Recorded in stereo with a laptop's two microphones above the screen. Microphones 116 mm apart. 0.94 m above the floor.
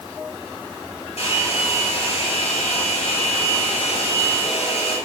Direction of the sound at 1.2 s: 70° left (ahead or behind).